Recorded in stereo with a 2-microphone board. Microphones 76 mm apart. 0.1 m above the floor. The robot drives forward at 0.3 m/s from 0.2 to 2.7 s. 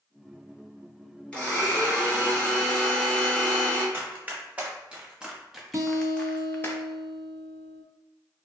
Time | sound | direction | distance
1.3 | a blender | 15° left (ahead or behind) | 1.7 m
3.9 | running footsteps | 25° right (ahead or behind) | 1.7 m
5.7 | a guitar | 45° right (ahead or behind) | 0.5 m